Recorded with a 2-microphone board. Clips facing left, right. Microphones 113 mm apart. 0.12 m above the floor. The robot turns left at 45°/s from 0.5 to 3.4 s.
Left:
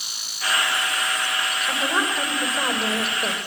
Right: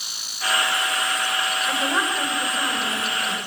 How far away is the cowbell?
No cowbell in this recording.